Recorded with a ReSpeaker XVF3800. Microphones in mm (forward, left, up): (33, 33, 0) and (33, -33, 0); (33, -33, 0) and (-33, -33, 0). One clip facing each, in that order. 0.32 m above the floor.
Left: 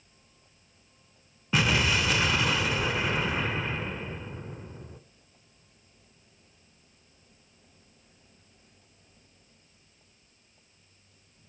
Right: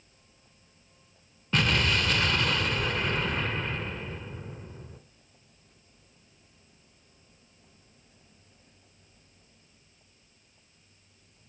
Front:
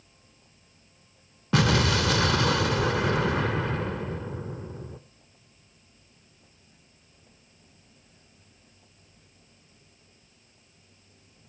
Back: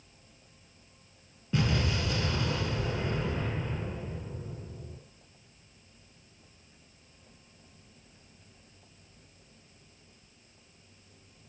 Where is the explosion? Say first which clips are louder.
Left 1 dB, front 7 dB; 10° left, 1.0 m.